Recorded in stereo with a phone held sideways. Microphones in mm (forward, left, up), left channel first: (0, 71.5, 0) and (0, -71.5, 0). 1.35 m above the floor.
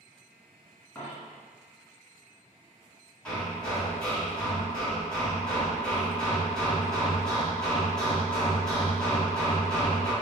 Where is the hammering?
5° left (ahead or behind), 1.5 m.